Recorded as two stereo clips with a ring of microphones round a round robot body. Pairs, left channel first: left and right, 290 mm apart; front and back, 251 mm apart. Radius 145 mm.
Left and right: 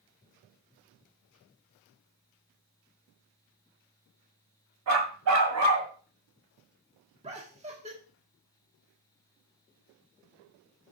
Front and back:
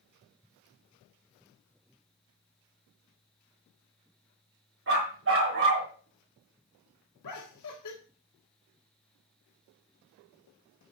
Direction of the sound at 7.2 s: 20° right.